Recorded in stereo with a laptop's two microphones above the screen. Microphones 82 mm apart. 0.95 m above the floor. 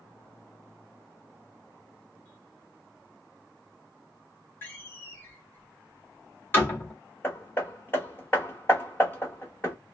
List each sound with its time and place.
4.6 s a door slam: 25° left (ahead or behind), 1.7 m
7.2 s hammering: 25° left (ahead or behind), 1.3 m